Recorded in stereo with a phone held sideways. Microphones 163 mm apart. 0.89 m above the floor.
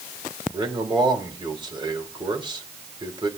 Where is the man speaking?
30° right (ahead or behind), 3 m.